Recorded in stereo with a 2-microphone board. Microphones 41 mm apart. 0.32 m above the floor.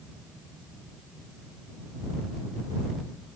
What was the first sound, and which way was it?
Only background noise.